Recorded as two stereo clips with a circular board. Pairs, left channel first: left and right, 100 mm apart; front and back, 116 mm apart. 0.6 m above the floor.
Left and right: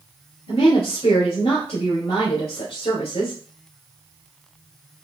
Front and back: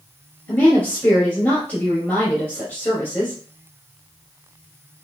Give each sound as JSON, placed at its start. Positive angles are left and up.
{"t": 0.5, "sound": "a woman speaking", "azimuth_deg": 70, "distance_m": 2.5}